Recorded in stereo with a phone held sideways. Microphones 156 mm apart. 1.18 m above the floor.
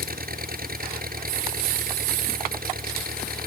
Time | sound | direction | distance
0.0 | an engine running | 70° right (ahead or behind) | ?